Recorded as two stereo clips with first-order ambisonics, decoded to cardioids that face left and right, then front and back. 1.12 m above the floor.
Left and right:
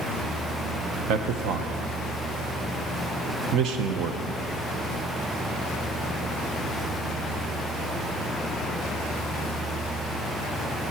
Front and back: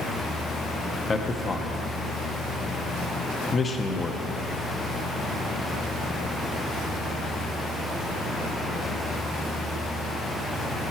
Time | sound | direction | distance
1.1 | a man speaking | 65° right | 0.8 m